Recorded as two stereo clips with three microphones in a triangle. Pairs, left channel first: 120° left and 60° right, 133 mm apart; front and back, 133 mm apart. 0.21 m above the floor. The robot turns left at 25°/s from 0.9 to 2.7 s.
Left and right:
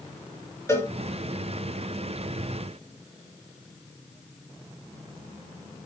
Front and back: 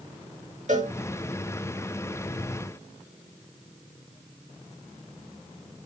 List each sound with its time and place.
0.7 s a cowbell: 170° right, 3.5 m